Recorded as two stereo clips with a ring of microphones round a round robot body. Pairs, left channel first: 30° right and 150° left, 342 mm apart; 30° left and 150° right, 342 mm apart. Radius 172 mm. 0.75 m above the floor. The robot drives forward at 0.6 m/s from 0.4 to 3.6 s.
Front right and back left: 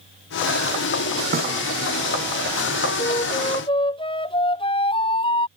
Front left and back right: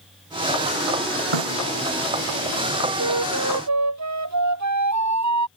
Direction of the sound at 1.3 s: 145° right.